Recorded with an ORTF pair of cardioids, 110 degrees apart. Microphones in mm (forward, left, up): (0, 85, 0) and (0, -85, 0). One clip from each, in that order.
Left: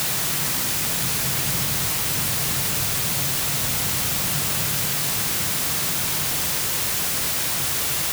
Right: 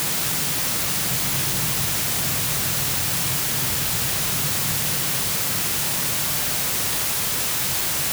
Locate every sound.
Only background noise.